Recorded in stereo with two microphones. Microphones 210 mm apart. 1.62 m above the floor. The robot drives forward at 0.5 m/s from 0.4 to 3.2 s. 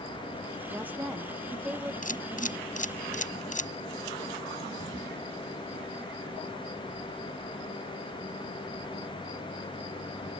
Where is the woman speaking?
10° right (ahead or behind); by 1.9 s 5° right (ahead or behind).